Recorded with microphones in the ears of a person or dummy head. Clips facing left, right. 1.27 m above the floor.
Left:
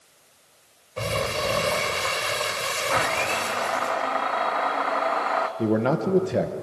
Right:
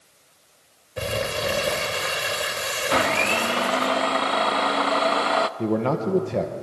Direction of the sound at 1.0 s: 15° right (ahead or behind).